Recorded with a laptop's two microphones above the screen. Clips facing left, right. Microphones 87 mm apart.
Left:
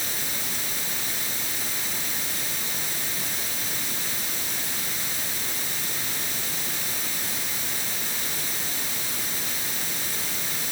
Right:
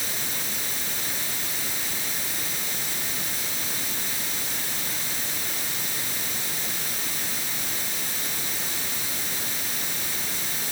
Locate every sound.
Only background noise.